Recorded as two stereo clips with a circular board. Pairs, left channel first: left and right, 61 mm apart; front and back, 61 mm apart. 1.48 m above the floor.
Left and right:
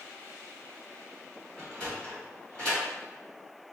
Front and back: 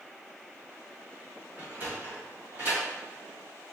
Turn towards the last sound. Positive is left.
turn(degrees=155)